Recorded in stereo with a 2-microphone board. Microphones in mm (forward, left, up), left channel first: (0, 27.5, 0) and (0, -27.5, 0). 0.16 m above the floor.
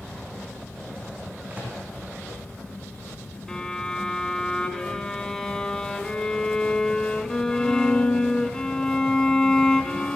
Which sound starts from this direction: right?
A microwave, at 1.5 s.